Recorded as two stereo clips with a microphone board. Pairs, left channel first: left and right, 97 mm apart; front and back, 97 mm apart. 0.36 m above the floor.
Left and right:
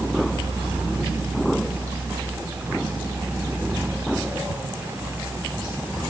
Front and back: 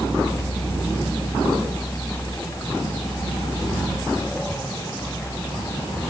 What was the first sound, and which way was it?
Only background noise.